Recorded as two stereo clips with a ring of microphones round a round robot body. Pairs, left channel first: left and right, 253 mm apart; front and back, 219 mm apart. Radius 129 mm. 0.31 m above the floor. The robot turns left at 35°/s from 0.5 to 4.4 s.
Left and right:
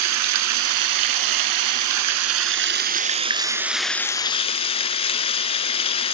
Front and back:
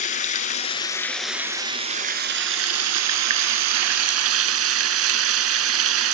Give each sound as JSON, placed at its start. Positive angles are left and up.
{"t": 0.0, "sound": "running water", "azimuth_deg": -65, "distance_m": 0.9}